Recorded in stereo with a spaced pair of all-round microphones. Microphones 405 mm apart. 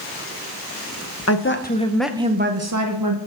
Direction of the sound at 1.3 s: 35° left (ahead or behind).